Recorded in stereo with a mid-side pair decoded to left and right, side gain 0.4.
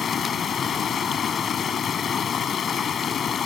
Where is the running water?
60° left.